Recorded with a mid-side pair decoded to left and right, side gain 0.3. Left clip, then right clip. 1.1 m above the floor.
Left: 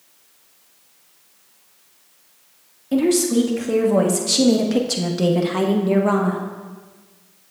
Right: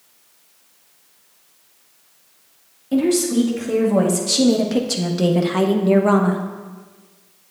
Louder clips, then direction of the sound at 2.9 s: Even; 20° left.